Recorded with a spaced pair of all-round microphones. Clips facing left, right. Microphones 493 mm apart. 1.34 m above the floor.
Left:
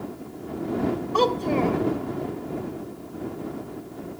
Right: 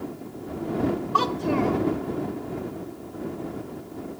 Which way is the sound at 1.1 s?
30° right (ahead or behind).